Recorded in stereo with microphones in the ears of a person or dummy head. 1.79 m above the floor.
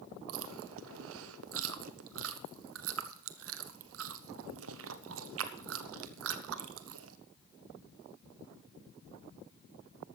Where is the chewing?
75° right (ahead or behind), 1.0 m.